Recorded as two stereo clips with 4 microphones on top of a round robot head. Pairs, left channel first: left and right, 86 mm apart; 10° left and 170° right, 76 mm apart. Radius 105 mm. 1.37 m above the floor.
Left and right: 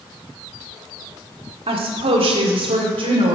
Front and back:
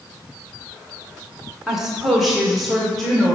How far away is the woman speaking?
About 1.0 m.